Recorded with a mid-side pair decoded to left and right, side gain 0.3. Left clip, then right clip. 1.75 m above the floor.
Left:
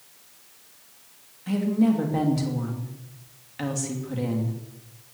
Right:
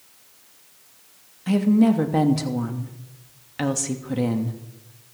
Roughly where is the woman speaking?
Ahead right.